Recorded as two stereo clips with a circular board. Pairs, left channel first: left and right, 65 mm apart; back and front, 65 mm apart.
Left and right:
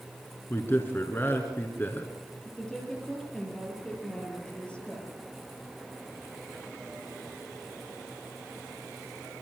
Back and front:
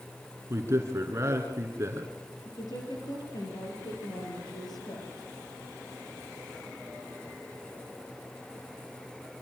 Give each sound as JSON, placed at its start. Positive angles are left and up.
{"t": 0.5, "sound": "a man speaking", "azimuth_deg": 40, "distance_m": 2.0}
{"t": 2.5, "sound": "a woman speaking", "azimuth_deg": 165, "distance_m": 5.0}